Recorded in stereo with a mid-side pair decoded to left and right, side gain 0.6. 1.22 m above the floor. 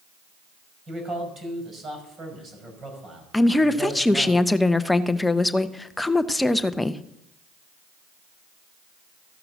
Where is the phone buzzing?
No phone buzzing in this recording.